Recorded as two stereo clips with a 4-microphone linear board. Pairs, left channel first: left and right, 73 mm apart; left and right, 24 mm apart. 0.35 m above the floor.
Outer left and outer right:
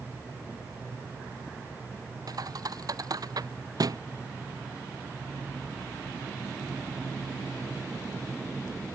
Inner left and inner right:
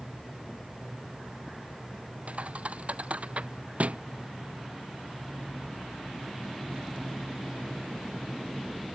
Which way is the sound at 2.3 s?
60° right (ahead or behind).